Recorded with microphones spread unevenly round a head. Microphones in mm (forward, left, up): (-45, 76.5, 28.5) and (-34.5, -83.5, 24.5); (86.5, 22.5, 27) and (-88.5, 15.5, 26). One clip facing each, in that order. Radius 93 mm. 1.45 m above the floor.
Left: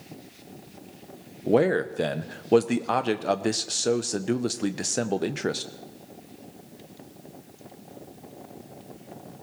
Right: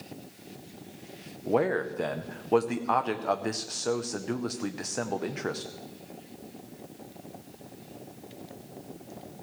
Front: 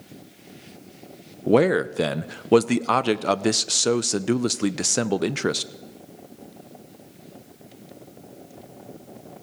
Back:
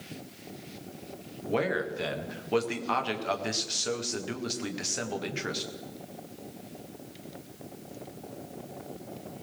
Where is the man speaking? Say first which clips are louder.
Left 5 dB, front 11 dB; 30° left, 0.5 m.